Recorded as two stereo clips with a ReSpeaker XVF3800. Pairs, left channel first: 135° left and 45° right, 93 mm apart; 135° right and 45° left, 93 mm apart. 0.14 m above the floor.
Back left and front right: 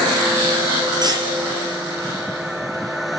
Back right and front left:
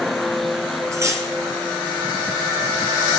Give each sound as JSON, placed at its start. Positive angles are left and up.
{"t": 0.9, "sound": "cutlery clinking", "azimuth_deg": -10, "distance_m": 1.9}